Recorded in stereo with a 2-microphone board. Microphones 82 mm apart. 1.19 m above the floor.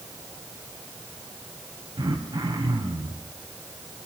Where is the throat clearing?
85° right, 4.5 m.